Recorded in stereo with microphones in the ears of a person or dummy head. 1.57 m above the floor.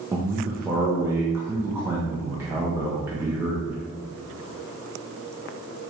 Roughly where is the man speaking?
Centre.